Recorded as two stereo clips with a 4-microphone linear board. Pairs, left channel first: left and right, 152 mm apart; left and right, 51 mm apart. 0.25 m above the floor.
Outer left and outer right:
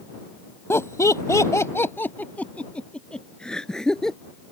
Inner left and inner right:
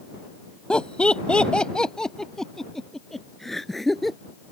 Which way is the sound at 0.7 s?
15° left (ahead or behind).